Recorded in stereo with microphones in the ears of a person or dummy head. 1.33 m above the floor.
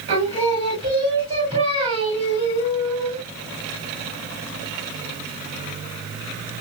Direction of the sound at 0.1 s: 30° right (ahead or behind).